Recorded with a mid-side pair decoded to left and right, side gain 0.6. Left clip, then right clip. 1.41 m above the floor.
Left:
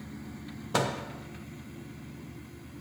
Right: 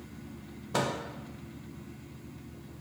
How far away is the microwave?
About 1.0 m.